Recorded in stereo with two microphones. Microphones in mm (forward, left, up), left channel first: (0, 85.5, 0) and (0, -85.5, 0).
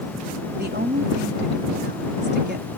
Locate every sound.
0.6 s a woman speaking: 85° right